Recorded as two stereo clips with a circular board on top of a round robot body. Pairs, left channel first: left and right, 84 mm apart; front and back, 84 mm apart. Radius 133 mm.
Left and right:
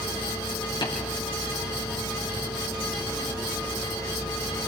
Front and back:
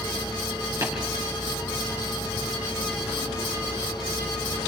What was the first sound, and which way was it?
Tapping, 125° left.